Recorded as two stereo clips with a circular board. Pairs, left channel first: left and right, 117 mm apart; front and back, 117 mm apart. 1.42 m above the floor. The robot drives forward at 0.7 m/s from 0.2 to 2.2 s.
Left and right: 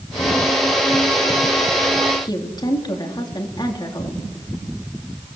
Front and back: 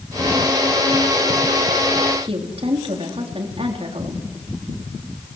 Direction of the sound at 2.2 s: 145° left.